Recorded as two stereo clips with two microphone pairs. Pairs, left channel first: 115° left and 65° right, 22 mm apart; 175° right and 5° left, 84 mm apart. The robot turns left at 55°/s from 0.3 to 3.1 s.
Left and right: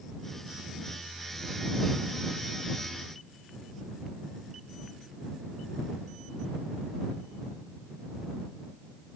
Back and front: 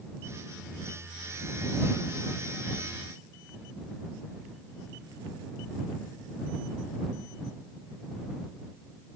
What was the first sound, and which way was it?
Only background noise.